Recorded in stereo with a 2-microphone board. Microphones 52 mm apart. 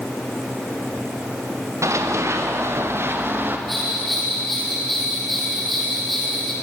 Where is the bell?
5° left (ahead or behind), 7 m.